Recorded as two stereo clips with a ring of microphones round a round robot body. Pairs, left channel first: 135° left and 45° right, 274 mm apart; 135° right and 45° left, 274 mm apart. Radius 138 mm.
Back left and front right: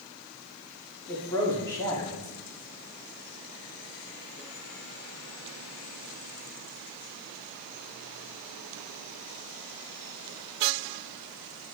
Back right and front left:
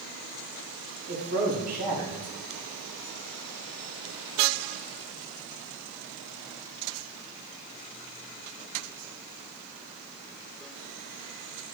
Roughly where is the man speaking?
Ahead left.